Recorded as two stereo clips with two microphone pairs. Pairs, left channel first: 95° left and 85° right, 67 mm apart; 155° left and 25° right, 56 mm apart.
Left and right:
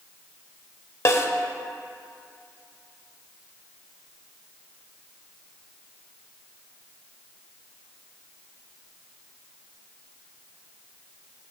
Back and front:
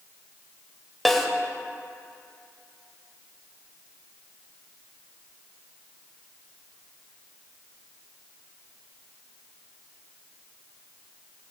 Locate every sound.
1.1 s a snare drum: 70° left, 0.8 m